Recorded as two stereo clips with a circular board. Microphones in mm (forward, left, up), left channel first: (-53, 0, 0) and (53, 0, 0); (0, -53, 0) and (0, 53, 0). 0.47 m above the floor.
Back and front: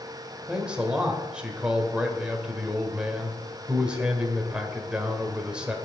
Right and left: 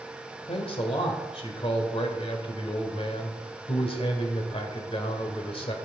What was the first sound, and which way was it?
A man speaking, 80° right.